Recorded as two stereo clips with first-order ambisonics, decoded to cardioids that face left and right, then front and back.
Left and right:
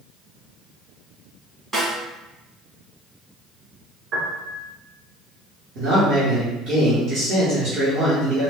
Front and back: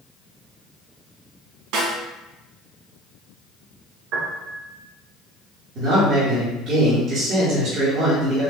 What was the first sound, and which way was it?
A snare drum, 165° right.